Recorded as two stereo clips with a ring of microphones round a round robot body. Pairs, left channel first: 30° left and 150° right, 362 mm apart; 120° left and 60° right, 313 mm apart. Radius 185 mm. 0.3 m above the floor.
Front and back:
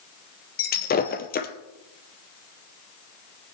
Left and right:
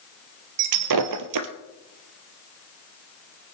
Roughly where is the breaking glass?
Ahead right.